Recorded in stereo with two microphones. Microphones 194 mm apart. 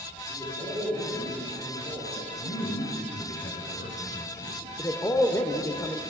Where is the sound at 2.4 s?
60° left (ahead or behind), 1.9 m.